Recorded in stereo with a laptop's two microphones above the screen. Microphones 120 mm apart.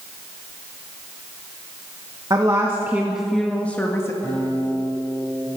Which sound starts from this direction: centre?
A guitar, at 4.2 s.